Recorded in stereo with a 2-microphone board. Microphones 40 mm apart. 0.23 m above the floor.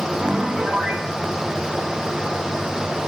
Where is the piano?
30° right (ahead or behind), 1.7 m.